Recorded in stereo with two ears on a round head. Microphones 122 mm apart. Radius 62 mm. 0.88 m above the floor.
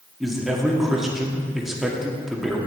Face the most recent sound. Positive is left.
turn(degrees=-5)  # may be behind; listen again after turning